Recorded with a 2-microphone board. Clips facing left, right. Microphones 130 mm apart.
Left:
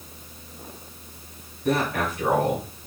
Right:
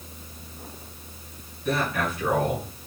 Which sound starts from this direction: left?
A man speaking, at 1.6 s.